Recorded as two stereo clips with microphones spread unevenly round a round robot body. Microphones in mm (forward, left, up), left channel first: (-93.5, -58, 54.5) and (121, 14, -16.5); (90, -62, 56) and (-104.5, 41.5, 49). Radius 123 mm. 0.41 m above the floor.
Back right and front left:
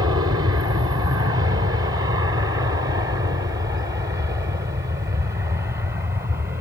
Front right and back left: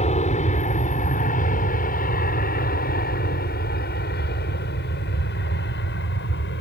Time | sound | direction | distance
0.0 | an aircraft | 10° left | ?